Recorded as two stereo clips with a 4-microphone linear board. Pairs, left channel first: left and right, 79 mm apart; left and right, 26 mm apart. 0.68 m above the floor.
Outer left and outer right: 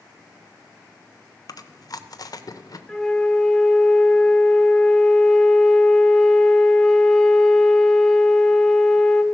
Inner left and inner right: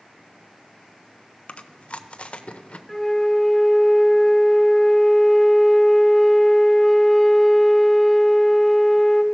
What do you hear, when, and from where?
1.5 s chewing: 55° left (ahead or behind), 0.7 m
2.9 s a flute: 5° left (ahead or behind), 0.8 m